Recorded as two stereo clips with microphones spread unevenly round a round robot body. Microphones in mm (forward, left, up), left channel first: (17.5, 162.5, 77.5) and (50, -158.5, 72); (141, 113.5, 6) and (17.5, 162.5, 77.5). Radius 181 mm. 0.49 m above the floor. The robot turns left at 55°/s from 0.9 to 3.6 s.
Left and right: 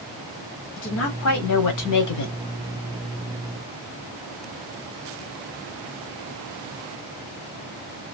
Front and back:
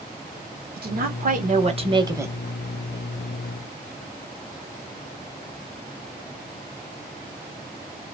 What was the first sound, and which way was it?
A woman speaking, 145° left.